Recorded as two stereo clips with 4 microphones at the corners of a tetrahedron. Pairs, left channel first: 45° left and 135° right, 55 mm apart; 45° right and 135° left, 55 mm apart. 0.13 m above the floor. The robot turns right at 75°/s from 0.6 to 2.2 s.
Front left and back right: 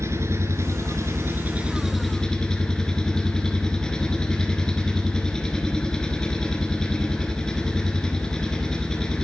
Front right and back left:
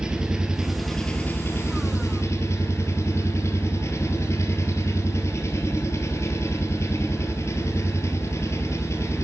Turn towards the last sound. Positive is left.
turn(degrees=-30)